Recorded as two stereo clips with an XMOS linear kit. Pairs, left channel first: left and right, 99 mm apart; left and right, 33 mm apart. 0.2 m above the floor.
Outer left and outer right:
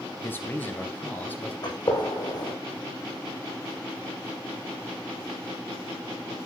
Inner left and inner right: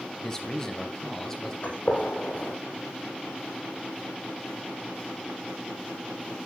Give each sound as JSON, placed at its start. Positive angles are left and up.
{"t": 0.2, "sound": "a man speaking", "side_deg": 20, "distance_m": 2.5}
{"t": 1.6, "sound": "a gunshot", "side_deg": 45, "distance_m": 4.0}